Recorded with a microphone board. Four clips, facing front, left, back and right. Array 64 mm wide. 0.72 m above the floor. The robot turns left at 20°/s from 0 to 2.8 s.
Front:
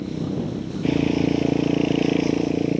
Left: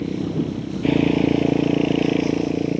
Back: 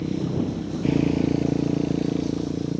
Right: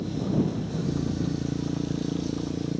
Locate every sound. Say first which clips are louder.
0.0 s a motorcycle: left 3 dB, back 1 dB; 100° left; by 2.8 s 40° left